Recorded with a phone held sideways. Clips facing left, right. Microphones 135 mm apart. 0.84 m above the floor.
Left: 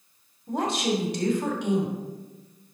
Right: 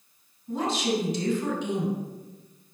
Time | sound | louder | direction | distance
0.5 | a woman speaking | left 1 dB | 70° left (ahead or behind) | 2.5 m